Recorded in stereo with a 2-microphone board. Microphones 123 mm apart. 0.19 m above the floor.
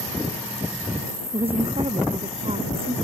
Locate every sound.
1.3 s a woman speaking: 50° right (ahead or behind)